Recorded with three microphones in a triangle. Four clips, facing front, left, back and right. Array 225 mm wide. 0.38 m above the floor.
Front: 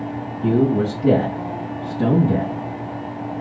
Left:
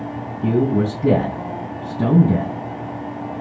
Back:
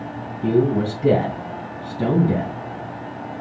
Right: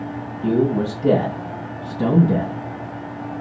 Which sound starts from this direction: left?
A man speaking, at 0.4 s.